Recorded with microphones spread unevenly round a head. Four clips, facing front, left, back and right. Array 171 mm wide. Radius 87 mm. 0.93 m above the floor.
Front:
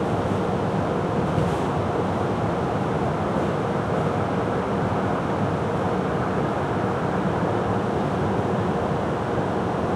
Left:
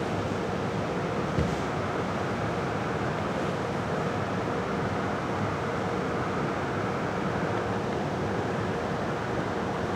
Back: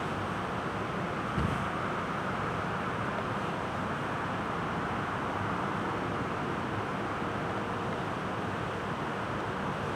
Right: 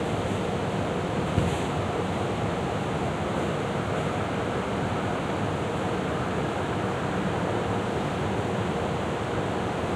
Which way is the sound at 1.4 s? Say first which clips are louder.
Right 3 dB, front 9 dB; 60° right.